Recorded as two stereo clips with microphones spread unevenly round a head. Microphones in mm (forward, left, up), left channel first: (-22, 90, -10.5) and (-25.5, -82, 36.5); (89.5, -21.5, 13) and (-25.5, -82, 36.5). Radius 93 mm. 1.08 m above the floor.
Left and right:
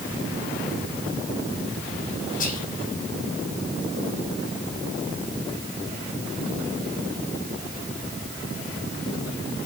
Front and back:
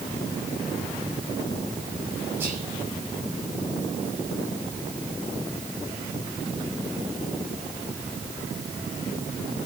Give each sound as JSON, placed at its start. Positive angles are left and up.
{"t": 2.4, "sound": "whispering", "azimuth_deg": 130, "distance_m": 6.5}